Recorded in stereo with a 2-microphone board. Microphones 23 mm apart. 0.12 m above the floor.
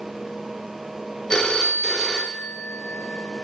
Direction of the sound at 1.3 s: 35° left (ahead or behind).